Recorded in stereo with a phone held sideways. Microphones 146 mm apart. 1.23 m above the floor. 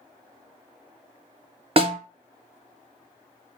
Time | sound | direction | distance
1.8 | a snare drum | 40° right (ahead or behind) | 0.6 m